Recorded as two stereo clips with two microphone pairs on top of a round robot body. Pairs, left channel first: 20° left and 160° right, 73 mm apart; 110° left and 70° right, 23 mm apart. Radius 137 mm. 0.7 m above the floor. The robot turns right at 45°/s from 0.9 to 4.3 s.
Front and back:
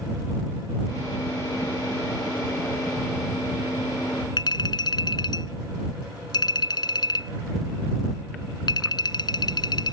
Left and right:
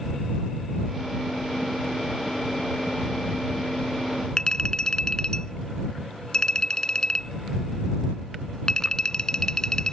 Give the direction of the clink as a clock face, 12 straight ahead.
10 o'clock.